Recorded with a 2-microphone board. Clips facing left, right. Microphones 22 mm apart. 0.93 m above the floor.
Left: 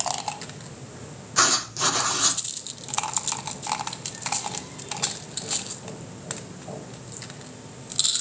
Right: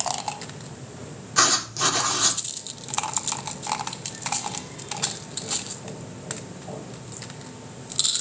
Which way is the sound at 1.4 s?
5° right (ahead or behind).